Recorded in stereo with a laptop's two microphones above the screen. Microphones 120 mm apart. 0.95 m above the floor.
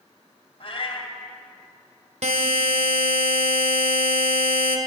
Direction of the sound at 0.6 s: 50° left (ahead or behind).